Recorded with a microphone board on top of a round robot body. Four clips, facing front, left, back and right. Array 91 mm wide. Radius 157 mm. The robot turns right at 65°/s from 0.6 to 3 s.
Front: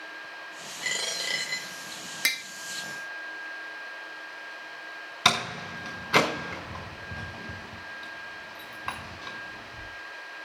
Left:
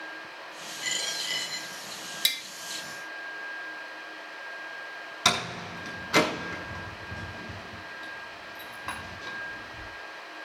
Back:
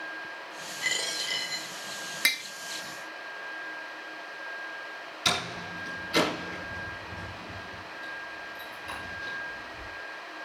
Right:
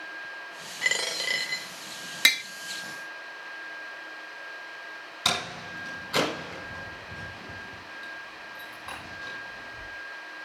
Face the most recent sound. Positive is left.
turn(degrees=15)